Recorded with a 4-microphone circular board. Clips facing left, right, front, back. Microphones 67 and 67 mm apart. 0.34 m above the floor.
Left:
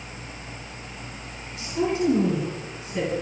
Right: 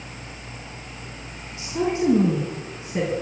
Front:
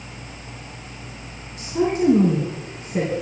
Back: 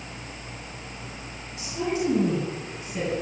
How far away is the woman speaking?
About 4.5 m.